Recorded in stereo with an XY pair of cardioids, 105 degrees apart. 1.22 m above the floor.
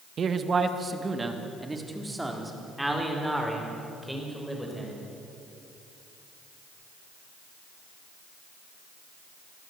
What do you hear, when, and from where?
0.2 s a man speaking: 50° right, 1.7 m; by 5.0 s straight ahead, 7 m